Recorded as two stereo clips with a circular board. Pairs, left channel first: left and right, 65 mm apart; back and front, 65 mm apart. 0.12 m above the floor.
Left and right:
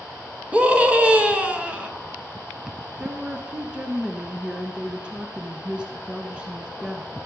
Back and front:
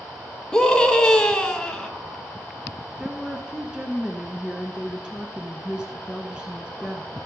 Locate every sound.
0.5 s a scream: 120° right, 1.5 m
3.0 s a woman speaking: 50° right, 1.3 m